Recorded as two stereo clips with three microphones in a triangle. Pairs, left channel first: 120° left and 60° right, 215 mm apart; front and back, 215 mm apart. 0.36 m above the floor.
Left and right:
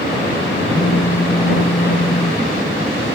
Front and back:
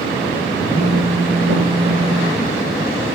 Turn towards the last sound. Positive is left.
turn(degrees=130)